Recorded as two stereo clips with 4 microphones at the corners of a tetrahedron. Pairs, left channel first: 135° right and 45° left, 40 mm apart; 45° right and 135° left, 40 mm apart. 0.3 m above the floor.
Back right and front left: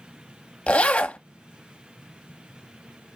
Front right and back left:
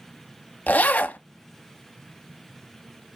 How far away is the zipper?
About 0.9 m.